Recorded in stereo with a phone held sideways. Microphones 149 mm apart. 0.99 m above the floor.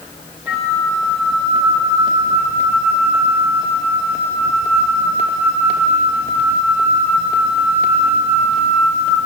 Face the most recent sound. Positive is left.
turn(degrees=-10)  # may be behind; listen again after turning